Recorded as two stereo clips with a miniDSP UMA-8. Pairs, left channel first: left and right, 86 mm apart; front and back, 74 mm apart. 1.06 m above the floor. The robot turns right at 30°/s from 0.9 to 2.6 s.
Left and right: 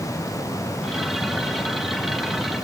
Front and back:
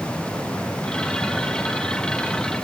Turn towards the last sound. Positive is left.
No sound to turn to.